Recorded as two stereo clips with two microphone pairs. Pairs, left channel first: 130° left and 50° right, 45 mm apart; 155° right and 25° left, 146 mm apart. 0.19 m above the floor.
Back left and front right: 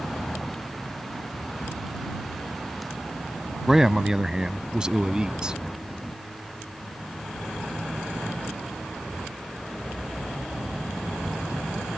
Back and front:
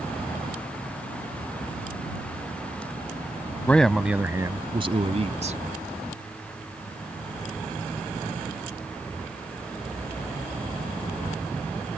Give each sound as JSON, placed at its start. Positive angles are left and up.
{"t": 3.7, "sound": "a man speaking", "azimuth_deg": -105}